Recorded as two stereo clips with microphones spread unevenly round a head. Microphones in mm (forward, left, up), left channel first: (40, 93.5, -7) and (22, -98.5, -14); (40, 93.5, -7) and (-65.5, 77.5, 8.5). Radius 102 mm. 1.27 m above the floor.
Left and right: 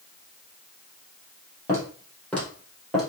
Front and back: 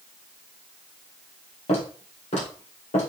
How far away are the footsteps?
About 2.5 m.